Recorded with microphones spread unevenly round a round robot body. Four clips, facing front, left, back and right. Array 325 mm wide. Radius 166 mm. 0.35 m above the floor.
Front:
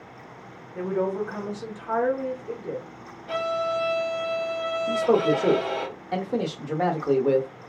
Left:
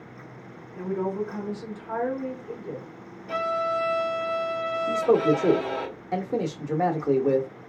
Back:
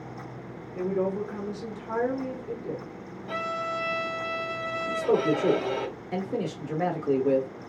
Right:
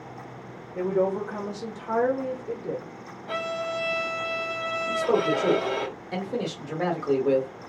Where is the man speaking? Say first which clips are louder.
Left 3 dB, front 3 dB; 80° left, 0.8 m.